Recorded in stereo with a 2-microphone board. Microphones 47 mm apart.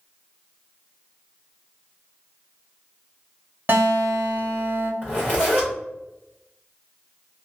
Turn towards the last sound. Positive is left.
turn(degrees=40)  # may be behind; listen again after turning